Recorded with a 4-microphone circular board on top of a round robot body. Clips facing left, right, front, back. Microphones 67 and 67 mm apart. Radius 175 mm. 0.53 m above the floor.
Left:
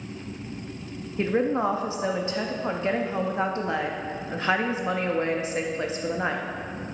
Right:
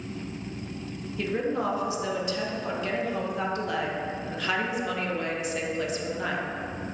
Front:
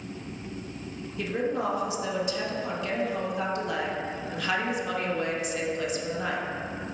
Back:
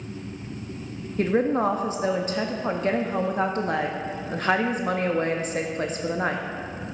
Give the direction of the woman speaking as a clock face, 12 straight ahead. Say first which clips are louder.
Left 4 dB, back 7 dB; 7 o'clock.